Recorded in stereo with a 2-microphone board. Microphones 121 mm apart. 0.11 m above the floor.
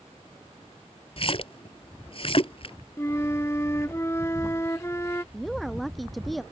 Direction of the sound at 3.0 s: 25° left (ahead or behind).